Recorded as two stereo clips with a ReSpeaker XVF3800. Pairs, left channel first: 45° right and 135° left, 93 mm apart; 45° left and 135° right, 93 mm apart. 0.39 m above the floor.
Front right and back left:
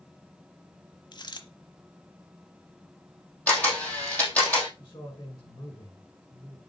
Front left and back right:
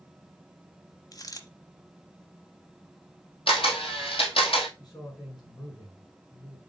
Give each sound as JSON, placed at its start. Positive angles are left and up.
{"t": 1.1, "sound": "a dropped coin", "azimuth_deg": -5, "distance_m": 0.9}
{"t": 3.5, "sound": "a camera shutter", "azimuth_deg": 25, "distance_m": 2.0}
{"t": 4.8, "sound": "a man speaking", "azimuth_deg": 0, "distance_m": 4.5}